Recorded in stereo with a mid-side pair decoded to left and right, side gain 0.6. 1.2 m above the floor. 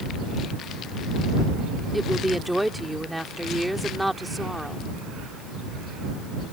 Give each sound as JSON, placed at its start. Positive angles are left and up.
{"t": 1.9, "sound": "a woman speaking", "azimuth_deg": 0}